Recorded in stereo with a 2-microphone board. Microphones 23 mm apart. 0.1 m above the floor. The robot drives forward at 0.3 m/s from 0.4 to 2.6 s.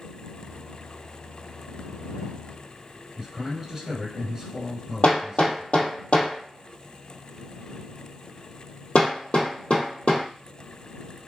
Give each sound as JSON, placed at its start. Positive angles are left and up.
{"t": 3.2, "sound": "a man speaking", "side_deg": -25, "distance_m": 1.8}
{"t": 5.0, "sound": "hammering", "side_deg": 50, "distance_m": 1.9}